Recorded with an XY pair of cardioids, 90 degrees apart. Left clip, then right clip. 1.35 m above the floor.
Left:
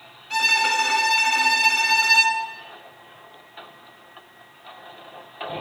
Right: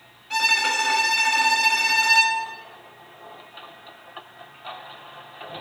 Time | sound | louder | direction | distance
0.3 | a violin | left 1 dB | straight ahead | 4 m